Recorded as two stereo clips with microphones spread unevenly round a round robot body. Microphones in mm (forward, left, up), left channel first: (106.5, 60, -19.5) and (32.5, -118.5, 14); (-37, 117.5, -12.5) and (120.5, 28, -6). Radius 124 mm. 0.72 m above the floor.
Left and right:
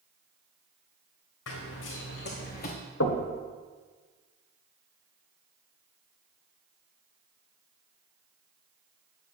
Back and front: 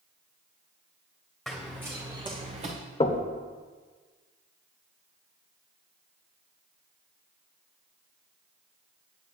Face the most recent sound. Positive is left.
turn(degrees=95)